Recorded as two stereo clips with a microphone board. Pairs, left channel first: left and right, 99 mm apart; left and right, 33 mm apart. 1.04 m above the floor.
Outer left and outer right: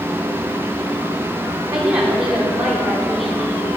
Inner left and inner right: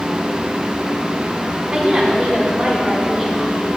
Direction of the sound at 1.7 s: 15° right (ahead or behind).